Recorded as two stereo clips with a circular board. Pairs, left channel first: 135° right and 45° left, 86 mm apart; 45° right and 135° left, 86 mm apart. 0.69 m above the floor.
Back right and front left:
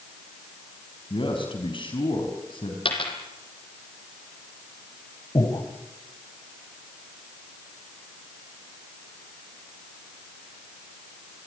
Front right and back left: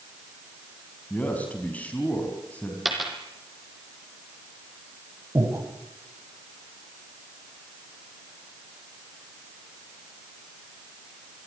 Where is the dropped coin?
135° right, 4 m.